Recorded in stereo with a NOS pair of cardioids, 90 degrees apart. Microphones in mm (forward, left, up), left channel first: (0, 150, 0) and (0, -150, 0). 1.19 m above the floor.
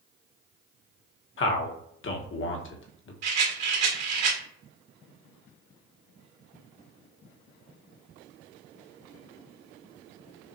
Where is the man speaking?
45° left, 1.2 m.